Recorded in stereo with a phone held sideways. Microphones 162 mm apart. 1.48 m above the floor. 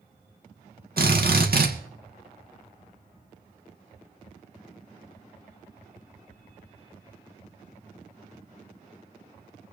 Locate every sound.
1.0 s a drill: 70° right (ahead or behind), 2 m